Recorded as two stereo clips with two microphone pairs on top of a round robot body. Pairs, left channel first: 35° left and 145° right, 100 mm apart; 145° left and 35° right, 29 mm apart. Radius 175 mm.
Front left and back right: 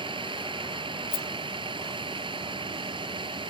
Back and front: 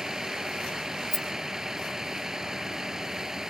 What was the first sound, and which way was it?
A vehicle, 105° right.